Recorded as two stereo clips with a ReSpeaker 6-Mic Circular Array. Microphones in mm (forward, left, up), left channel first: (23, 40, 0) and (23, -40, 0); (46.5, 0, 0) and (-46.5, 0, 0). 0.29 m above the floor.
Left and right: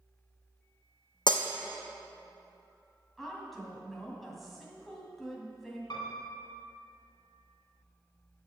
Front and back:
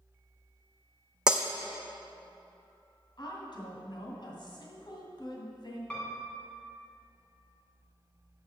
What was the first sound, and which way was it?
Breaking glass, 100° left.